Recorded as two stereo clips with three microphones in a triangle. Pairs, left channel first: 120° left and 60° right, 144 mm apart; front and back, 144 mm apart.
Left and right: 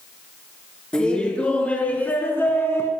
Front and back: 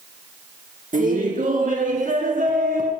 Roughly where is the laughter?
Behind right.